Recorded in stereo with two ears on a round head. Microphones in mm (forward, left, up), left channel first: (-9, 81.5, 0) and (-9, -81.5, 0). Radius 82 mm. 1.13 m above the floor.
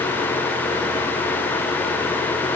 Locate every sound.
Only background noise.